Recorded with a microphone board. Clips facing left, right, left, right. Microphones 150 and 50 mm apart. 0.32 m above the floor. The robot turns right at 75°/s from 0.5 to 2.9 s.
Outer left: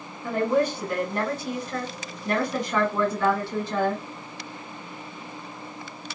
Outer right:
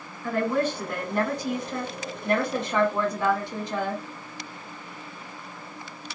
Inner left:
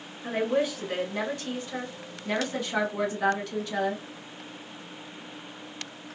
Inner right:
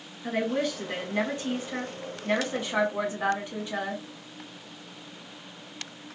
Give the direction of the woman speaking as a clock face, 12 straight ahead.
7 o'clock.